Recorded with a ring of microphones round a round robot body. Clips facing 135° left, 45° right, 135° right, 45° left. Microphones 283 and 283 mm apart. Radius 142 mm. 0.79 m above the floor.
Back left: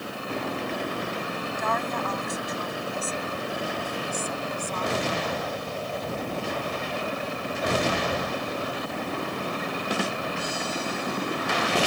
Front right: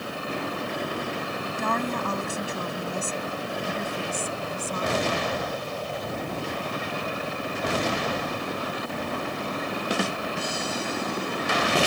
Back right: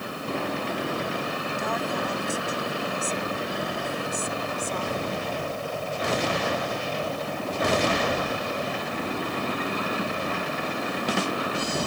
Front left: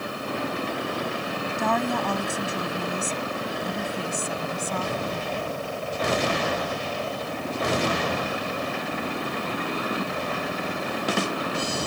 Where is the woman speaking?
10° left; by 5.2 s 25° left.